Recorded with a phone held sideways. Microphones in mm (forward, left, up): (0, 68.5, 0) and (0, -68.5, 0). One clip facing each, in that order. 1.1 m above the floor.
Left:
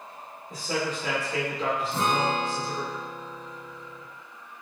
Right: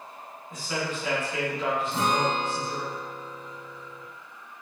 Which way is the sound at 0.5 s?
35° left (ahead or behind).